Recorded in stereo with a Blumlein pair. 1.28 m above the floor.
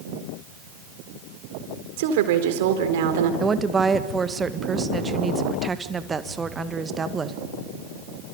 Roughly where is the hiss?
No hiss in this recording.